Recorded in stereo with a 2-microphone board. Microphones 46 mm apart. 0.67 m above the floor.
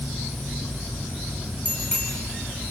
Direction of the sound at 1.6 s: 30° left (ahead or behind).